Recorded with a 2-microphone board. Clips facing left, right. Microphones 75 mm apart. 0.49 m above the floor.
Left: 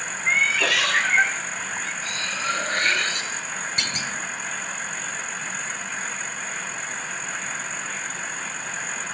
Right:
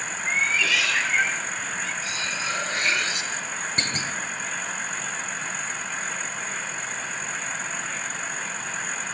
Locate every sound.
0.3 s a cat meowing: 65° left (ahead or behind), 1.0 m; by 1.9 s 45° left (ahead or behind), 2 m
2.0 s cutlery clinking: 45° left (ahead or behind), 5.5 m
3.8 s a clunk: 30° right (ahead or behind), 1.8 m